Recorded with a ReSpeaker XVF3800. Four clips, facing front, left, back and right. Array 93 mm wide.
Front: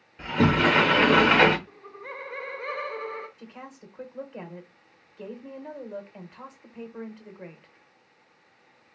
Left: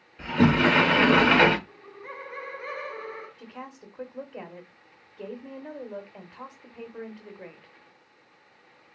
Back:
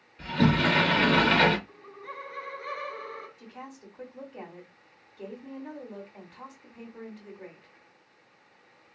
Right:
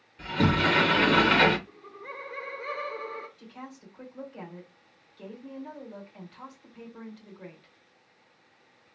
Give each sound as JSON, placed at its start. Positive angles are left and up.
{"t": 0.2, "sound": "a sliding door", "azimuth_deg": 40, "distance_m": 0.6}
{"t": 1.7, "sound": "laughter", "azimuth_deg": 10, "distance_m": 1.1}
{"t": 3.4, "sound": "a woman speaking", "azimuth_deg": 55, "distance_m": 1.0}